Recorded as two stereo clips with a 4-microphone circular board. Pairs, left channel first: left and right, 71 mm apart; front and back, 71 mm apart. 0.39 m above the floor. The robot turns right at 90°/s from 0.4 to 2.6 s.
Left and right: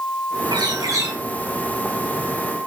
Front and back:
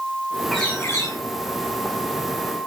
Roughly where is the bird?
Right.